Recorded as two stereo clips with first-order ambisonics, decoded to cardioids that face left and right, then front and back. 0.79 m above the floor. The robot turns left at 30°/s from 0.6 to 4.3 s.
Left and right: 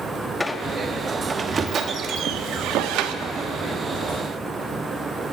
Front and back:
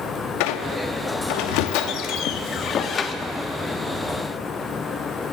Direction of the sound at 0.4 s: 10° left.